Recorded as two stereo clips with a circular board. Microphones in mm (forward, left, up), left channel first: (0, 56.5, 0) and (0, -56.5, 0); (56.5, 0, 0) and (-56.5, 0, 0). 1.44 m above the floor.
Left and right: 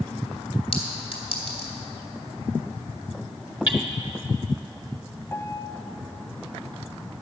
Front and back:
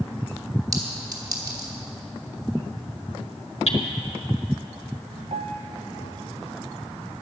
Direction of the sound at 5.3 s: 160° left.